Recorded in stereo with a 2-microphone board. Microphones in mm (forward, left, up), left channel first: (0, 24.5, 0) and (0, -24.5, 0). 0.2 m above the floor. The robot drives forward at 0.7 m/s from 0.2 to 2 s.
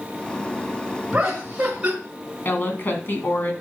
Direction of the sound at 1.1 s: 20° right (ahead or behind).